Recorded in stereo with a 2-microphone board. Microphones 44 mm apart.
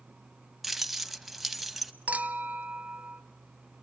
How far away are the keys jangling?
About 0.7 m.